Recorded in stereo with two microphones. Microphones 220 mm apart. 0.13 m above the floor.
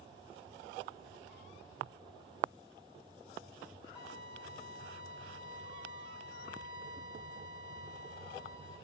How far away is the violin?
About 2.5 m.